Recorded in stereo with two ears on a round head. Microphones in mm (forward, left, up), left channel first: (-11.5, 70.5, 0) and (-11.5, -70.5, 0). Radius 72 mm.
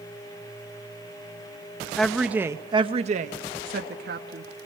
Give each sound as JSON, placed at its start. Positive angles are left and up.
{"t": 2.0, "sound": "a woman speaking", "side_deg": 5, "distance_m": 1.2}